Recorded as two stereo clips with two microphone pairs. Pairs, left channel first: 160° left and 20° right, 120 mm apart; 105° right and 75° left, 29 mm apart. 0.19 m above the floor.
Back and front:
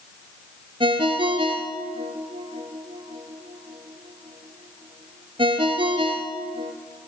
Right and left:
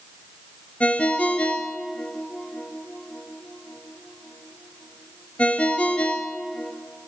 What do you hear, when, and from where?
0.8 s a ringtone: 65° right, 1.4 m